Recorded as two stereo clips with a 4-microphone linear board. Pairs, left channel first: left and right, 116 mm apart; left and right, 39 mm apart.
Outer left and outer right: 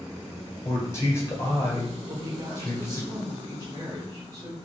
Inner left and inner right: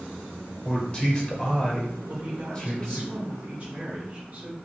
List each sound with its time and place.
0.7 s a man speaking: 25° left (ahead or behind), 1.7 m
2.1 s a woman speaking: 35° right (ahead or behind), 1.2 m